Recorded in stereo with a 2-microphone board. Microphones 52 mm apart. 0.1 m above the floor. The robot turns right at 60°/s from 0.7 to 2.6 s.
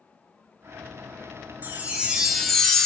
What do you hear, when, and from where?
1.6 s a chime: 45° right, 0.6 m; by 2.9 s 15° left, 0.6 m